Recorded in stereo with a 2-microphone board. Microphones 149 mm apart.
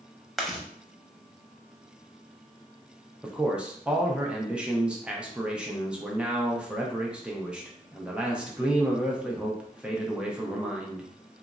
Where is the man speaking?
5° right (ahead or behind), 0.5 m.